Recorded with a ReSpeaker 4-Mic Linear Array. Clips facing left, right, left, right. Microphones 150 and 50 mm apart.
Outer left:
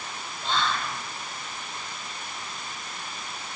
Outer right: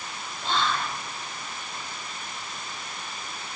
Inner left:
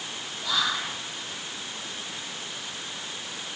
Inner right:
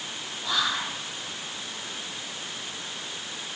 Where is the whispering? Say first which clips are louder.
Outer right 1 dB, even; 25° right (ahead or behind), 1.4 m.